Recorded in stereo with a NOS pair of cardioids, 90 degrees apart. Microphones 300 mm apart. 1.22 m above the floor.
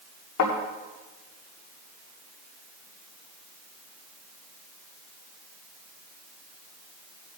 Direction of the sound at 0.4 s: 70° left.